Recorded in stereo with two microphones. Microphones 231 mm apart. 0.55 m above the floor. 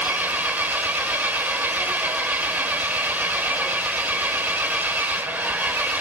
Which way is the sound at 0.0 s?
10° right (ahead or behind).